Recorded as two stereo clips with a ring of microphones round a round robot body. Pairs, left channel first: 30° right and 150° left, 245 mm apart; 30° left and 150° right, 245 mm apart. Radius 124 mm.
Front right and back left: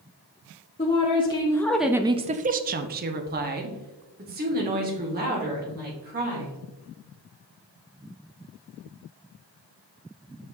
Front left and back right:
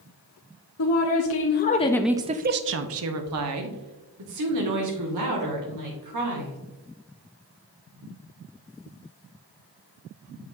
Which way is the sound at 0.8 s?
35° left.